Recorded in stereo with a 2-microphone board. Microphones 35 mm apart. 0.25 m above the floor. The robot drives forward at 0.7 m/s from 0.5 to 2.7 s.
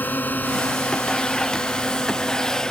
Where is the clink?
No clink in this recording.